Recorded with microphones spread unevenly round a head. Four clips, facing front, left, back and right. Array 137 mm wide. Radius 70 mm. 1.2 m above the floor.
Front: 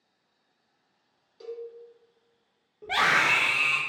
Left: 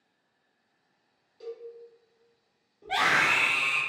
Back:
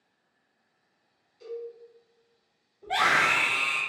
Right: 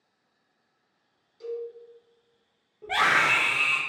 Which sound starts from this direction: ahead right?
A scream, at 2.8 s.